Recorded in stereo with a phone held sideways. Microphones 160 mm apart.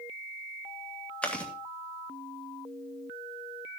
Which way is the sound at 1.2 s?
10° left (ahead or behind).